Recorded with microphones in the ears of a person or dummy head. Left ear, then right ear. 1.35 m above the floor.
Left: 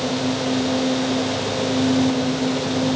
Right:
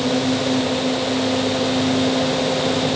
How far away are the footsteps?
I don't hear footsteps.